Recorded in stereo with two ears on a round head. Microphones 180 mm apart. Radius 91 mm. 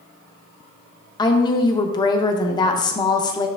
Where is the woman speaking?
20° left (ahead or behind), 0.8 m.